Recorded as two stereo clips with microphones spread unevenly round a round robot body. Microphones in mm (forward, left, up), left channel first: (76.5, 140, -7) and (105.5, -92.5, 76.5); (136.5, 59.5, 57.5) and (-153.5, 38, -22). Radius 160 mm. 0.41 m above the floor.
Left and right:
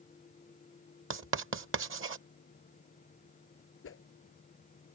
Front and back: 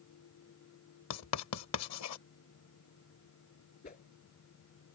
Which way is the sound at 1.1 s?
40° right.